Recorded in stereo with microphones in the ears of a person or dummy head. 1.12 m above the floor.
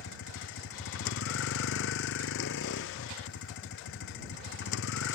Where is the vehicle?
70° left (ahead or behind).